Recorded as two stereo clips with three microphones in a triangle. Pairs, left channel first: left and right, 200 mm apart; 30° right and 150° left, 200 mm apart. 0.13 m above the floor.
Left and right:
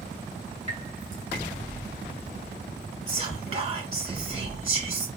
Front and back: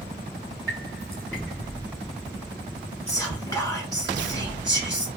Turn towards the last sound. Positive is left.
turn(degrees=-85)